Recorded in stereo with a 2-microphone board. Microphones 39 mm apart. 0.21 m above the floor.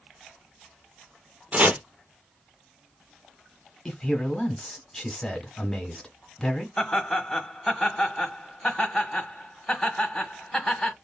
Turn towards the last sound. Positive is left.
turn(degrees=0)  # may be behind; listen again after turning